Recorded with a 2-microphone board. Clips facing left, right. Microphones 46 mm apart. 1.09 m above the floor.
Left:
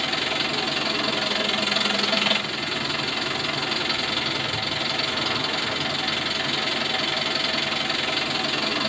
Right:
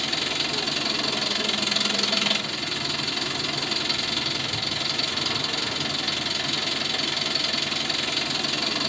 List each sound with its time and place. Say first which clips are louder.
0.0 s an engine running: left 3 dB; 10° left (ahead or behind), 1.7 m